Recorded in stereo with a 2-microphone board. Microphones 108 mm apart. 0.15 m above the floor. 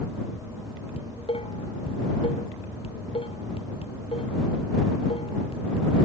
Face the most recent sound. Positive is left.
turn(degrees=60)  # may be behind; listen again after turning